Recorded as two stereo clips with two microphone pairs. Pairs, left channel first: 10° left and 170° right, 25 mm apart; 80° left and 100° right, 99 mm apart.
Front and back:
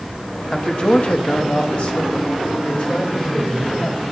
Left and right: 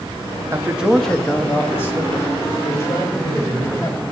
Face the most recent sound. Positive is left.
turn(degrees=30)